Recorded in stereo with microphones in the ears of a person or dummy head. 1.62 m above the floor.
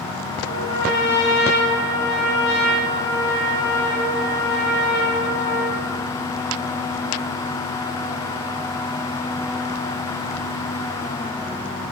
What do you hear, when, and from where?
0.5 s a trumpet: 65° left (ahead or behind), 4.5 m